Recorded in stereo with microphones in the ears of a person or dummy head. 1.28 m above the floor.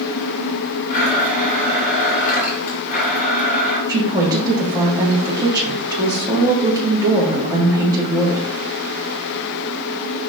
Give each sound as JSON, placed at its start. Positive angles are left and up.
{"t": 0.9, "sound": "a blender", "side_deg": 50, "distance_m": 2.5}
{"t": 3.9, "sound": "a woman speaking", "side_deg": -20, "distance_m": 2.0}